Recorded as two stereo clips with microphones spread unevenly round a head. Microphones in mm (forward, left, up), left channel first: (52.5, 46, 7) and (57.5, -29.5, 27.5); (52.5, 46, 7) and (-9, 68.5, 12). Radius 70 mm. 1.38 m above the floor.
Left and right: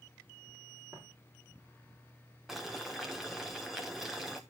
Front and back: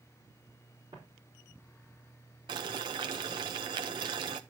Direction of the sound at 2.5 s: 170° right.